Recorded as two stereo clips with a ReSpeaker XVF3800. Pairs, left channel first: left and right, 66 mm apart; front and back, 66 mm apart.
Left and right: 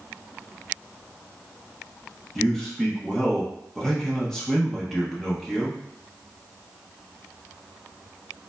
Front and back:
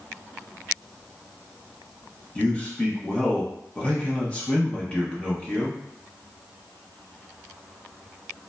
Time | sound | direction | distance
2.4 | a man speaking | 20° left | 0.7 m